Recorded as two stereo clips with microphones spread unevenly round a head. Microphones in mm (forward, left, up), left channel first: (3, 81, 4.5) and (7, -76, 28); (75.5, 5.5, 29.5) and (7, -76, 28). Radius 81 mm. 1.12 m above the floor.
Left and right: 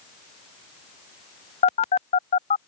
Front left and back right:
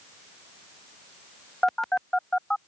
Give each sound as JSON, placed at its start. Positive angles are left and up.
{"t": 1.6, "sound": "a phone buzzing", "azimuth_deg": 135}